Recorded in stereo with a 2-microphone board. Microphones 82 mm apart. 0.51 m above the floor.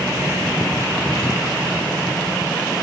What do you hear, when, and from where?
Only background noise.